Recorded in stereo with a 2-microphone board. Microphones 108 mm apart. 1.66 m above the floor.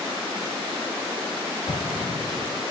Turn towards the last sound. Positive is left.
turn(degrees=60)  # may be behind; listen again after turning